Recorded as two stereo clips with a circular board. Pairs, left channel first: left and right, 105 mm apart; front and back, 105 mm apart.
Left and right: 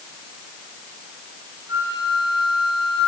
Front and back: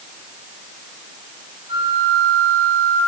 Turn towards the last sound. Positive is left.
turn(degrees=-145)